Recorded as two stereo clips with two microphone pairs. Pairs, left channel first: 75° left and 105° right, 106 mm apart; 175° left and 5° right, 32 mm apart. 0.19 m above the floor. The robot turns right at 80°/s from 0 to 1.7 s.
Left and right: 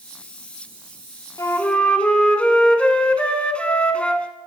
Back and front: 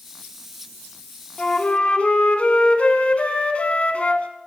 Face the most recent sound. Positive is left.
turn(degrees=150)